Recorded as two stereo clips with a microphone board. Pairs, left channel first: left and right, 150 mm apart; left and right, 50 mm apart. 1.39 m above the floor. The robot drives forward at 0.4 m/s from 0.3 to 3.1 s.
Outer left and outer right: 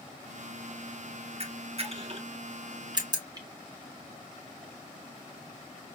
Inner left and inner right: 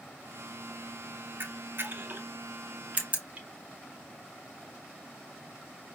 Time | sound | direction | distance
1.4 | a camera shutter | 45° right (ahead or behind) | 0.6 m